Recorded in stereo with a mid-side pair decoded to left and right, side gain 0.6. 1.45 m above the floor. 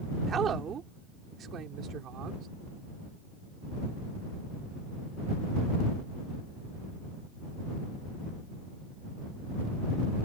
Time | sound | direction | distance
0.3 | a woman speaking | 40° right | ?